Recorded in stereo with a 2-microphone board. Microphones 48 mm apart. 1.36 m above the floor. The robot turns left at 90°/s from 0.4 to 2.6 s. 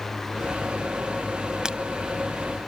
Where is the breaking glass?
15° right (ahead or behind); by 1.8 s 25° right (ahead or behind).